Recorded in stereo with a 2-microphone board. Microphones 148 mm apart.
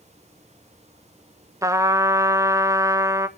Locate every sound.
1.6 s a trumpet: 20° right (ahead or behind), 0.6 m